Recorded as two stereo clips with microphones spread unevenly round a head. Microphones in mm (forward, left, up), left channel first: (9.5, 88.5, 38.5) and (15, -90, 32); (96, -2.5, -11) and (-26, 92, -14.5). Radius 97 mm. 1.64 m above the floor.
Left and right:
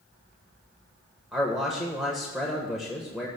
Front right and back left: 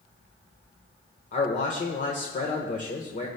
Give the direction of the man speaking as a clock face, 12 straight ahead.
12 o'clock.